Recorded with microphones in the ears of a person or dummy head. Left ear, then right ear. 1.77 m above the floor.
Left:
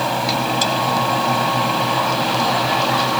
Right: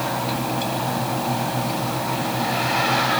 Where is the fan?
50° left (ahead or behind).